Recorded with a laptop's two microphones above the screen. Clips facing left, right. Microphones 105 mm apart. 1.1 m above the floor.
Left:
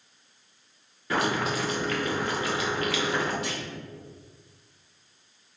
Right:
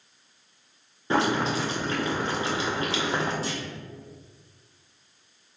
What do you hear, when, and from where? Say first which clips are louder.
1.1 s boiling: right 3 dB; 25° right (ahead or behind), 0.7 m
3.4 s a clunk: right 1 dB; 35° right (ahead or behind), 0.8 m